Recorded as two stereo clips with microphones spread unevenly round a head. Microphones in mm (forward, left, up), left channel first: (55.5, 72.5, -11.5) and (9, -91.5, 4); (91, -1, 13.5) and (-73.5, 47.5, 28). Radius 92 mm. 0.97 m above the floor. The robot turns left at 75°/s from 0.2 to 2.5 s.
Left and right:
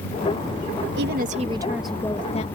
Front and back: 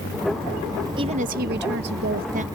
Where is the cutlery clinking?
No cutlery clinking in this recording.